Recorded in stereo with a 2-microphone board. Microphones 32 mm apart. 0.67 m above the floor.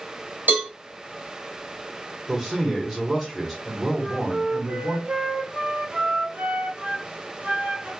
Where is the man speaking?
15° right (ahead or behind), 1.4 m.